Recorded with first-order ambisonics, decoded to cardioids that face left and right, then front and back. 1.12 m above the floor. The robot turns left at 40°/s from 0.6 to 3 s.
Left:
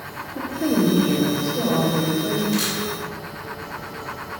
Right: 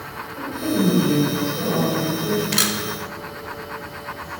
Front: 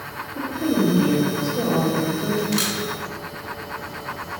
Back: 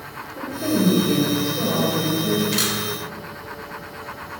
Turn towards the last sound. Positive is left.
turn(degrees=-110)